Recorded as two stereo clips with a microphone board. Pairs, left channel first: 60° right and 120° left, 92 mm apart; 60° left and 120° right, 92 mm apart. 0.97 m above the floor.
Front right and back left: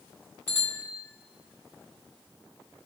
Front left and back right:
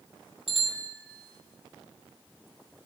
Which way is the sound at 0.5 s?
135° right.